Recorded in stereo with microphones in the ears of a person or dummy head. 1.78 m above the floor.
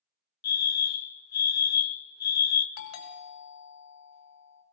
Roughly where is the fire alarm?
Left.